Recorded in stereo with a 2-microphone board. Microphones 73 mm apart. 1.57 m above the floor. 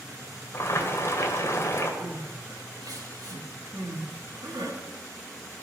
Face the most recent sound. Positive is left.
turn(degrees=-70)  # may be behind; listen again after turning